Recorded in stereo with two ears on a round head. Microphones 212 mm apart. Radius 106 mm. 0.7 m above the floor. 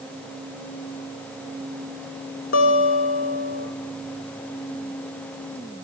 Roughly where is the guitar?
Left.